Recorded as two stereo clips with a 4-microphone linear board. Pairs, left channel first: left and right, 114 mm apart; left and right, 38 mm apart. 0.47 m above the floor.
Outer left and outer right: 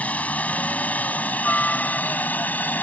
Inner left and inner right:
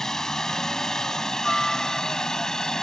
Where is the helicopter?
10° left (ahead or behind); by 2.8 s 15° left (ahead or behind).